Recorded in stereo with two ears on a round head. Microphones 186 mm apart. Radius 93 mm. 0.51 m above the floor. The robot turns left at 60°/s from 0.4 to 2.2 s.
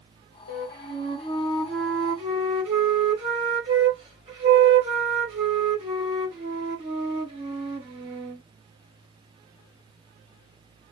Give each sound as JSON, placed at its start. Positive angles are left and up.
{"t": 0.5, "sound": "a flute", "azimuth_deg": 75, "distance_m": 1.7}